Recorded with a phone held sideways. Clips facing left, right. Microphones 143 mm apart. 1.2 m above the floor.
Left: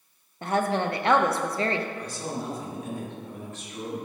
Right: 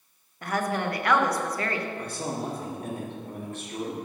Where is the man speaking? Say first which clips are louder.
Right 1 dB; 55° right (ahead or behind), 2 m.